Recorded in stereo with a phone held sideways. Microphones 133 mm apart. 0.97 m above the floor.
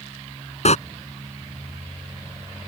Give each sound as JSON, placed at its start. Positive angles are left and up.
{"t": 0.7, "sound": "a door slam", "side_deg": 55}